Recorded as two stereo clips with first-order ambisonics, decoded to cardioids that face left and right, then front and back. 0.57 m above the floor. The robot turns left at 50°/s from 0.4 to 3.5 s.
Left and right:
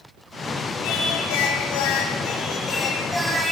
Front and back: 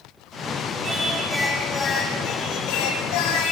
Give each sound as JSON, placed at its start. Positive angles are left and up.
{"t": 0.8, "sound": "singing", "azimuth_deg": 115, "distance_m": 5.5}